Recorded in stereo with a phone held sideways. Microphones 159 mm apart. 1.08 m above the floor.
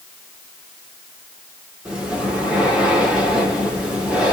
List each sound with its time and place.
1.9 s breathing: 5° right (ahead or behind), 1.6 m